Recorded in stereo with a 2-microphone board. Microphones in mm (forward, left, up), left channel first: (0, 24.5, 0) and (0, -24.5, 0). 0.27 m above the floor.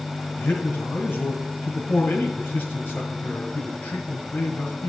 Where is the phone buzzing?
No phone buzzing in this recording.